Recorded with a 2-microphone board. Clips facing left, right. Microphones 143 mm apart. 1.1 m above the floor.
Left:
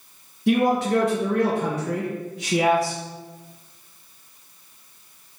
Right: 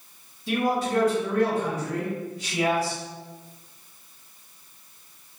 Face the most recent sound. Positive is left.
turn(degrees=70)  # may be behind; listen again after turning